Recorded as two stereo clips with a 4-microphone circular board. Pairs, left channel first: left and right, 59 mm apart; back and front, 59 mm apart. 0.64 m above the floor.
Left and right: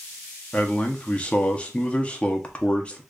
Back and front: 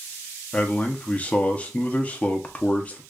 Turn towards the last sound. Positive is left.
turn(degrees=140)